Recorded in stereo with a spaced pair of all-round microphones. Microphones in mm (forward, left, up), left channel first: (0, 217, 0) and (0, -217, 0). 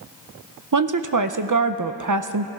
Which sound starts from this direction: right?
A woman speaking, at 0.7 s.